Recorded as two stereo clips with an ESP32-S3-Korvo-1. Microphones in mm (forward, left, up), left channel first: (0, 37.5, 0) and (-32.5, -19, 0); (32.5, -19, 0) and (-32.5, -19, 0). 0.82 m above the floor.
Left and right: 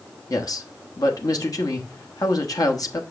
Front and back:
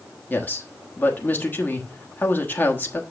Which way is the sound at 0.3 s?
60° left.